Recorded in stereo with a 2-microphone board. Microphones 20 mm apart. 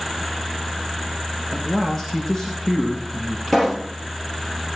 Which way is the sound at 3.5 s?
15° left (ahead or behind).